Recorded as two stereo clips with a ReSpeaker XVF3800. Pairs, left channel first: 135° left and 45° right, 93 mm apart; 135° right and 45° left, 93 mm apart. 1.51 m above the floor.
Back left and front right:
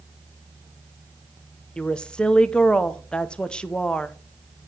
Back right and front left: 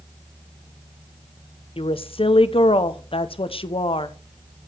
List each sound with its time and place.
1.8 s a woman speaking: 145° right, 0.8 m